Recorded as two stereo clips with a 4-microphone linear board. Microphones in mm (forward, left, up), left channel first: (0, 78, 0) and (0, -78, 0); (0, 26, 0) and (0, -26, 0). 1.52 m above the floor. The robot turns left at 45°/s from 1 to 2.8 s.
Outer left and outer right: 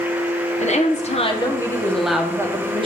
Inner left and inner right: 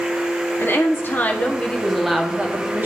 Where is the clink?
I don't hear a clink.